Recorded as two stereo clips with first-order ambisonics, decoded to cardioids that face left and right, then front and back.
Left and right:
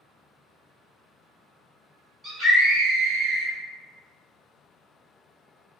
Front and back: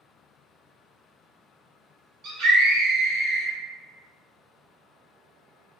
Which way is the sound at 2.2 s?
155° right.